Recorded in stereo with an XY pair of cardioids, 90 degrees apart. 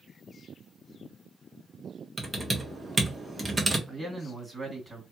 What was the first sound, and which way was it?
Typing on a keyboard, 25° right.